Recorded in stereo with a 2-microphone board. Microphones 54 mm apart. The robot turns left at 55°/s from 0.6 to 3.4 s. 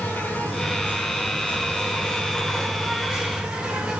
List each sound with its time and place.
0.0 s an insect: 120° left, 0.9 m; by 4.0 s 30° right, 0.9 m